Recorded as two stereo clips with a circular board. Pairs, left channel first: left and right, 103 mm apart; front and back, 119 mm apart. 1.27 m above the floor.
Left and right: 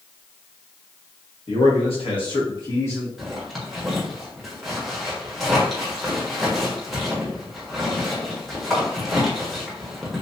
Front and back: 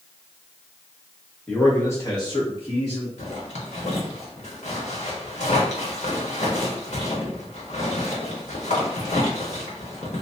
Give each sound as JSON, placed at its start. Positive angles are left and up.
{"t": 1.5, "sound": "a man speaking", "azimuth_deg": 80, "distance_m": 1.7}
{"t": 3.2, "sound": "a zipper", "azimuth_deg": 0, "distance_m": 1.2}